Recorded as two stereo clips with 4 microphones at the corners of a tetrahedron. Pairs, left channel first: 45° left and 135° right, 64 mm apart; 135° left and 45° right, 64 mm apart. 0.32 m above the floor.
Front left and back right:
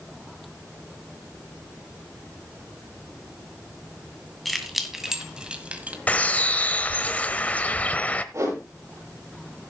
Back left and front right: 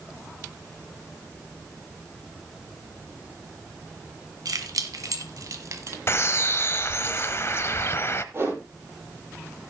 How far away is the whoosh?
About 8.5 m.